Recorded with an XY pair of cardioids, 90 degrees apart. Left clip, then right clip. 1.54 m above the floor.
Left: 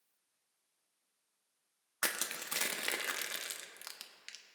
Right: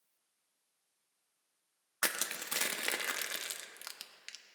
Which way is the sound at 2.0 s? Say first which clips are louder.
Right 1 dB; 5° right.